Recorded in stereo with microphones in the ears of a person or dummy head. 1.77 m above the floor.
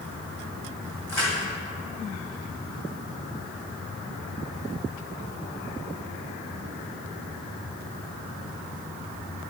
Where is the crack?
15° left (ahead or behind), 1.6 m.